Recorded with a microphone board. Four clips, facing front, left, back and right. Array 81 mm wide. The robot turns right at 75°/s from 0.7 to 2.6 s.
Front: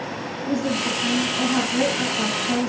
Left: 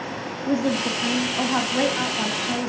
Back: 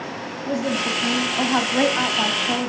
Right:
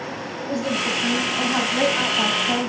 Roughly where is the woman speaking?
Left.